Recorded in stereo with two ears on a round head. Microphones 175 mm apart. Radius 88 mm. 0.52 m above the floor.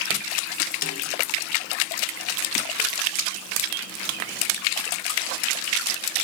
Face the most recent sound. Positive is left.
turn(degrees=45)  # may be behind; listen again after turning